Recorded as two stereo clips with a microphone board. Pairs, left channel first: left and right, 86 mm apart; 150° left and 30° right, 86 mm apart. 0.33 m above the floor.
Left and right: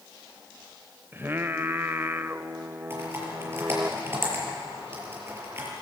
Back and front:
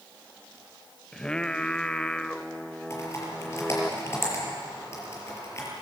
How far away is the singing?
About 0.6 m.